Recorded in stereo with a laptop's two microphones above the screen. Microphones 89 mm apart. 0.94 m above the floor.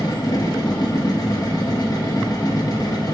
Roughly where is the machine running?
Left.